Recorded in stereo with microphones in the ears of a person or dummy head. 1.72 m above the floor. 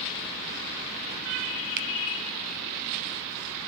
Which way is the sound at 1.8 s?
55° right (ahead or behind).